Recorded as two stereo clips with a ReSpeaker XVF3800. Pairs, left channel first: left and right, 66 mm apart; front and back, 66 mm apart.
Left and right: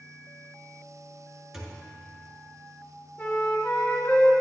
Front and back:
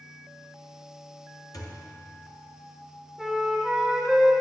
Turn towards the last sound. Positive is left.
turn(degrees=100)